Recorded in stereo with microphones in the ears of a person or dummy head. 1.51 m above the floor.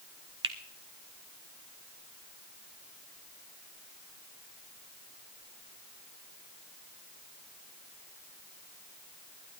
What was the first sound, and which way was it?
A finger snap, 30° right (ahead or behind).